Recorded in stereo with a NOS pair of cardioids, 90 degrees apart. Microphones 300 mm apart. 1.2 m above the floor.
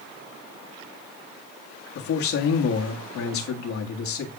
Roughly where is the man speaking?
Ahead left.